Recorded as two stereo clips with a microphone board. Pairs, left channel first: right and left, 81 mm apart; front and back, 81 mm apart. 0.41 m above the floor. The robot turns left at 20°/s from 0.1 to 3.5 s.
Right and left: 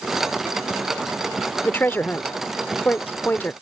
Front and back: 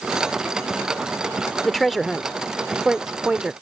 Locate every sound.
1.6 s a woman speaking: 80° right; by 3.5 s 120° right